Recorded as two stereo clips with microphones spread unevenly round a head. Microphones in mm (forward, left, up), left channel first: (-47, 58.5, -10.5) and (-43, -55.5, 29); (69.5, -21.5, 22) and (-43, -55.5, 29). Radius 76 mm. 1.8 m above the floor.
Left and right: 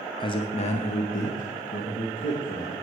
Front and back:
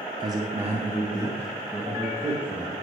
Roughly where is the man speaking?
Behind left.